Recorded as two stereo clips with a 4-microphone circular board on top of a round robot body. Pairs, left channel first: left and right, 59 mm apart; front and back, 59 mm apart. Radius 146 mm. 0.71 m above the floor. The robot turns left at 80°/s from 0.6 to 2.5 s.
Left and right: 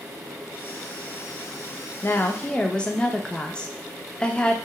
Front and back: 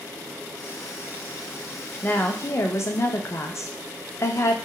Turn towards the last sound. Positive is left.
turn(degrees=20)